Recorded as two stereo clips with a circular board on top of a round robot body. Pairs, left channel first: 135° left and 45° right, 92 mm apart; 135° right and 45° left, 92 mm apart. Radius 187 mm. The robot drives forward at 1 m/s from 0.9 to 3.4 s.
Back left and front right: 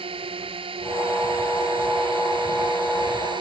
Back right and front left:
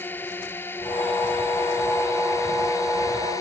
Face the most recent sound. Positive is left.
turn(degrees=-80)